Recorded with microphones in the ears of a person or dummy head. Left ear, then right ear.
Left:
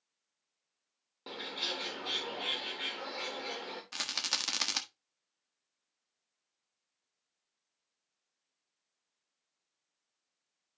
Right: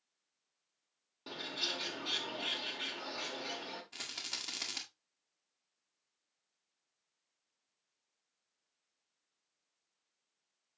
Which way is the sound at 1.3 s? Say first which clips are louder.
Left 1 dB; 10° left (ahead or behind).